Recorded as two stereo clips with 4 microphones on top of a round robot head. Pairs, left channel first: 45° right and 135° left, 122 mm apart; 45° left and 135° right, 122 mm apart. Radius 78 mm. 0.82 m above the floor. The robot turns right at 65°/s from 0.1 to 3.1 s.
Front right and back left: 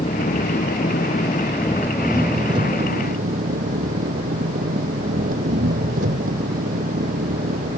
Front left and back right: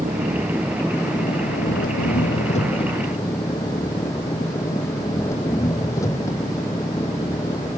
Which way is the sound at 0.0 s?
80° right.